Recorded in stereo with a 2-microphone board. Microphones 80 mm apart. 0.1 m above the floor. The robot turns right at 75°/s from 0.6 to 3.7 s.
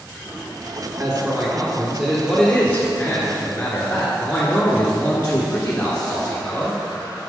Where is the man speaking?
25° right (ahead or behind), 1.3 m; by 6.8 s 20° left (ahead or behind), 1.3 m.